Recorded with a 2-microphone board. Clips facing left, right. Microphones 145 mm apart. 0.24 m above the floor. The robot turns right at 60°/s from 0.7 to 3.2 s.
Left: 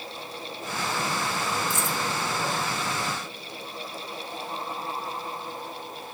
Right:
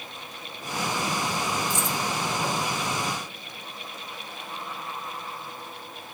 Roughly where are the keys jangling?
Left.